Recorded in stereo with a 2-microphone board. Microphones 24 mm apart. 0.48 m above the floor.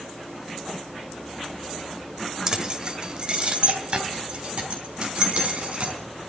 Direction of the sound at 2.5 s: 30° right (ahead or behind).